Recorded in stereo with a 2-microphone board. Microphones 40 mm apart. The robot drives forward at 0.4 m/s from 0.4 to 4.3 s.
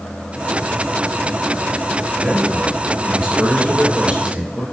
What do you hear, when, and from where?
2.2 s a man speaking: 30° right (ahead or behind), 3 m; by 4.6 s 25° right (ahead or behind), 3.5 m